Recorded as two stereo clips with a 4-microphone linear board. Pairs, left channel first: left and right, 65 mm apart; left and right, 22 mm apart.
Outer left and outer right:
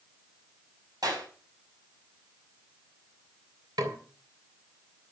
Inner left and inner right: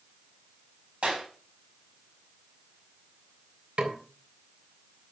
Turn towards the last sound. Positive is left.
turn(degrees=-85)